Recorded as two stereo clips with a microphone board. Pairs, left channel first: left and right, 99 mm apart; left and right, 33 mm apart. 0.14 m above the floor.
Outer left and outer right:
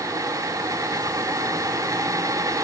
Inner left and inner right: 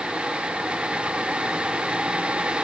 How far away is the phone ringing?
I don't hear a phone ringing.